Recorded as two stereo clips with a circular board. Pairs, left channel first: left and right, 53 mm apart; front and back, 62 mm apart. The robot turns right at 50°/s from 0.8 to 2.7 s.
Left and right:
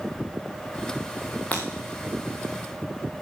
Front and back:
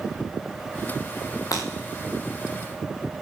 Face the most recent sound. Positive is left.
turn(degrees=90)